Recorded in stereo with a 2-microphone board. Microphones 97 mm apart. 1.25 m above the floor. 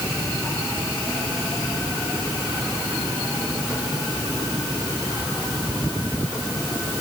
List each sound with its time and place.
Only background noise.